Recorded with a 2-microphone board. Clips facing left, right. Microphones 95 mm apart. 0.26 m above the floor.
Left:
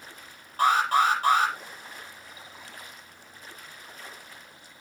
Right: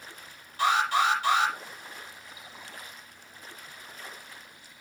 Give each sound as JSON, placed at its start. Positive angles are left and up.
{"t": 0.6, "sound": "an alarm", "side_deg": 45, "distance_m": 8.0}